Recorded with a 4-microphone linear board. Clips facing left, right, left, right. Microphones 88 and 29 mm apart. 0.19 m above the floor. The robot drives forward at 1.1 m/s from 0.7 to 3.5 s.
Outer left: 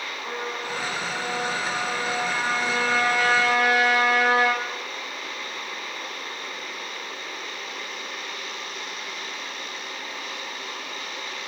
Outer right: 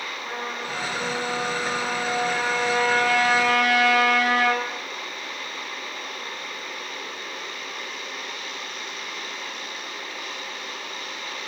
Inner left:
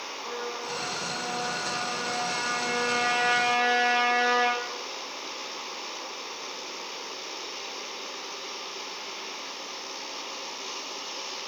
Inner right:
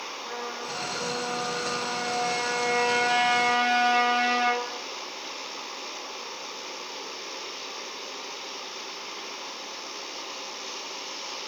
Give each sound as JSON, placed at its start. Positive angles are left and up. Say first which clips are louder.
{"t": 0.2, "sound": "a trumpet", "louder": "outer left 1 dB, inner left 2 dB", "side_deg": -45, "distance_m": 6.0}